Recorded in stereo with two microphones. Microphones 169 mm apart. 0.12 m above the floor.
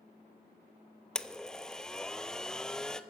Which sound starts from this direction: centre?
A blender, at 1.1 s.